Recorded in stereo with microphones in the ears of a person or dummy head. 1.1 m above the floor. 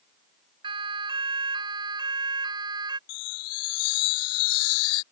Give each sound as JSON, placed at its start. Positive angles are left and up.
{"t": 0.6, "sound": "a siren", "side_deg": -25}
{"t": 3.1, "sound": "a chime", "side_deg": 85}